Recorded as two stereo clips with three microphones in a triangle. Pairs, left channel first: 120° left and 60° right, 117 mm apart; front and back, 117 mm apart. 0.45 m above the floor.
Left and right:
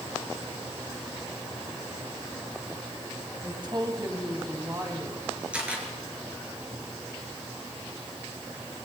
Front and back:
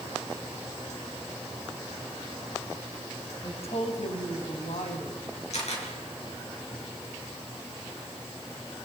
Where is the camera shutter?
20° left, 6 m.